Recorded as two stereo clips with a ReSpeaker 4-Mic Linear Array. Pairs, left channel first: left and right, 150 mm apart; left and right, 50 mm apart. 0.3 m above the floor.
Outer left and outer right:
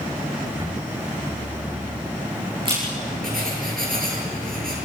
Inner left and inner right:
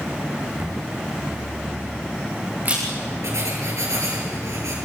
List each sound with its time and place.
0.6 s a camera shutter: 35° right (ahead or behind), 7.5 m
3.2 s writing: 75° right (ahead or behind), 6.5 m